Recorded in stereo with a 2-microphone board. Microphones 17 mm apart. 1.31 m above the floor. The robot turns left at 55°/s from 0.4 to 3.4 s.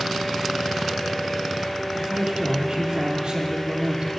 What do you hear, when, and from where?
1.9 s a man speaking: 35° right, 2.5 m; by 4.1 s 115° right, 2.5 m